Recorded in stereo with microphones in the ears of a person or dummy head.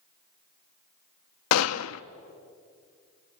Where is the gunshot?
85° left, 0.7 m.